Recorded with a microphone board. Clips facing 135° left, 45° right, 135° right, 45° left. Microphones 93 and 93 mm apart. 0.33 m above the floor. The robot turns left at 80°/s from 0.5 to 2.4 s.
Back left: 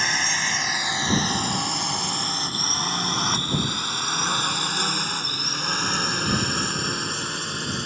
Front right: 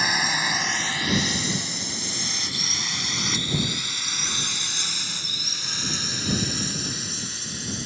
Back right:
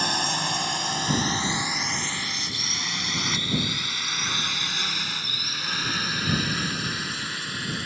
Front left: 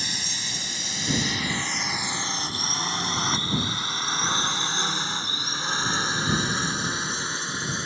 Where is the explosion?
I don't hear an explosion.